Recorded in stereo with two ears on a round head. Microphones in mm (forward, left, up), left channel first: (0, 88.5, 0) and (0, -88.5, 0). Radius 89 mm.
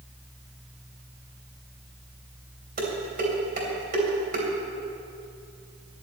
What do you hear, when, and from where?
2.8 s dishes clattering: 45° right (ahead or behind), 3 m